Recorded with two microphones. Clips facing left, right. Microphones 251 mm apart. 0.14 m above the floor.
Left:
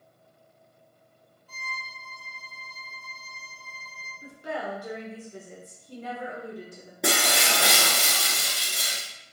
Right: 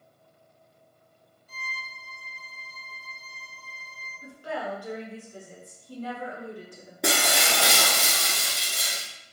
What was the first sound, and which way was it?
A violin, 25° right (ahead or behind).